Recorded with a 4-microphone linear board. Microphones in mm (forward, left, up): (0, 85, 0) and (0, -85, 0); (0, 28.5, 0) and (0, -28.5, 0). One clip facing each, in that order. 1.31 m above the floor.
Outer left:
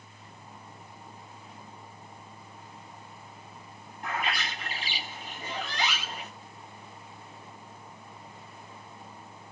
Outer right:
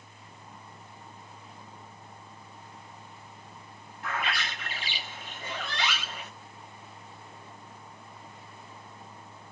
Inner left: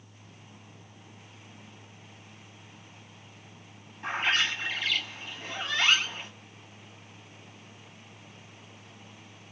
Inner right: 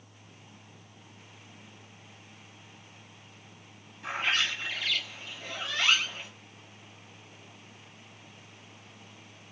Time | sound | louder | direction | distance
4.0 | a bird | outer left 1 dB, inner left 2 dB | 40° left (ahead or behind) | 1.1 m